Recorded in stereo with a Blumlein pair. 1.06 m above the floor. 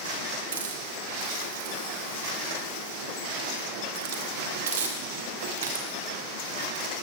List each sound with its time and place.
0.5 s a hiss: 60° right, 0.9 m